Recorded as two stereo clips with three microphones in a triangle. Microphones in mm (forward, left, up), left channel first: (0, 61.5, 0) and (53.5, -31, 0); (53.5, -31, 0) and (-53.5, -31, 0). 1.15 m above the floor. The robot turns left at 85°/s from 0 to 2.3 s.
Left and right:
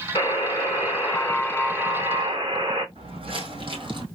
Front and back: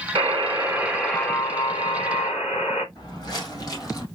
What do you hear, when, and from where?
0.1 s a buzzer: 155° left, 2.5 m; by 2.9 s 25° right, 2.5 m
3.0 s footsteps: 45° right, 2.5 m